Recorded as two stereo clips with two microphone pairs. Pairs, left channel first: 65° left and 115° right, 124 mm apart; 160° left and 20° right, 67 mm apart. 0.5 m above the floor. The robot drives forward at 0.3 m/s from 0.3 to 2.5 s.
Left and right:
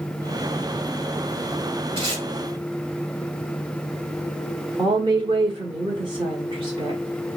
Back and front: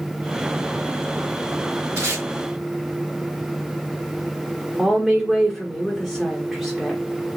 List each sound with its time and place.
2.0 s tape being pulled: 70° right, 2.5 m
4.8 s a woman speaking: 110° right, 1.0 m